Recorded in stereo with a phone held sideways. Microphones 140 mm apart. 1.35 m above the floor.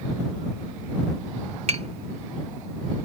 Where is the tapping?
50° right (ahead or behind).